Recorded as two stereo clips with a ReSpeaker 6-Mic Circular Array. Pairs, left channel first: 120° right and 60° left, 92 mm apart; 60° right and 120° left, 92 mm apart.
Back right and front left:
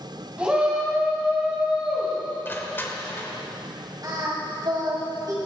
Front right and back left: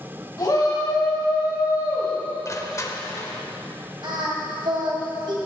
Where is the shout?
15° right, 2.5 m.